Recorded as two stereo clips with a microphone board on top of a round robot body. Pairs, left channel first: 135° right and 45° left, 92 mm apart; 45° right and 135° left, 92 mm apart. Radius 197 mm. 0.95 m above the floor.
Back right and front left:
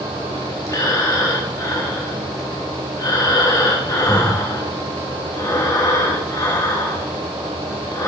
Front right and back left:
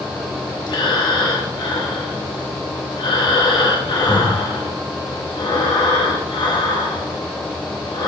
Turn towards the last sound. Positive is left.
turn(degrees=-80)